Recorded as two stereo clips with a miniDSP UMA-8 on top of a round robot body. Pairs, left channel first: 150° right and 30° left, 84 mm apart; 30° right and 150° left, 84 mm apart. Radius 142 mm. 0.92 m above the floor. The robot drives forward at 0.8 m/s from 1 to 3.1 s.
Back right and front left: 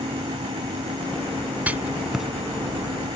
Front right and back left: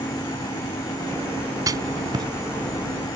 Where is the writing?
105° left; by 2.2 s 115° left.